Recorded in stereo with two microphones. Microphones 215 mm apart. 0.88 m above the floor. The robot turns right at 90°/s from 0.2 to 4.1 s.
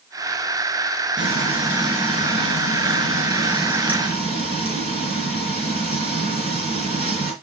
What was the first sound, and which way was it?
Frying, 60° right.